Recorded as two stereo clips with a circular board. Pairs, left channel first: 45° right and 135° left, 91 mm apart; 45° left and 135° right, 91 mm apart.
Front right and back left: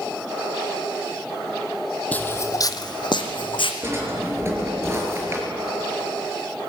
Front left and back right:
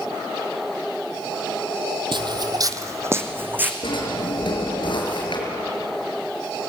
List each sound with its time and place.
2.1 s footsteps: 115° right, 1.3 m; by 3.7 s 65° right, 2.5 m
3.8 s a drawer: 75° left, 5.5 m